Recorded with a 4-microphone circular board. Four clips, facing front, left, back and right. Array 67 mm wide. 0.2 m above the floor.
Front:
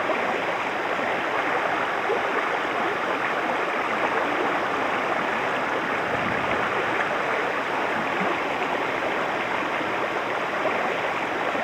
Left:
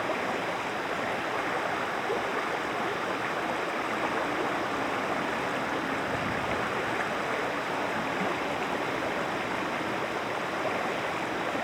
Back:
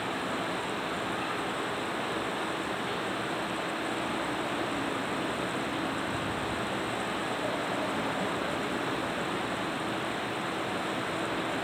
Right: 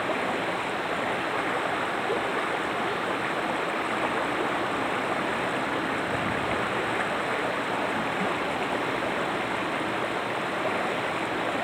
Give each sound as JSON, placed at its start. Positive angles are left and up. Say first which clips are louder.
{"t": 0.0, "sound": "running water", "louder": "right 2 dB, front 8 dB", "azimuth_deg": -5}